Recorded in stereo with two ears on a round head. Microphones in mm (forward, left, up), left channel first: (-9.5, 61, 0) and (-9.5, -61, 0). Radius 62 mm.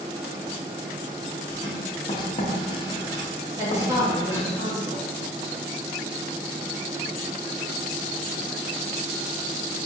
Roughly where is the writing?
Left.